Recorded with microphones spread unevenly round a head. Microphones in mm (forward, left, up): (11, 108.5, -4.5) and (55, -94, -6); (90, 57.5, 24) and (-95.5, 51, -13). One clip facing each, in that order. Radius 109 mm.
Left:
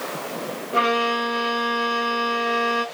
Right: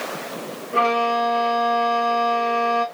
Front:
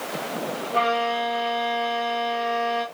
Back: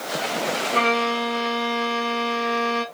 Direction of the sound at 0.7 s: 175° left.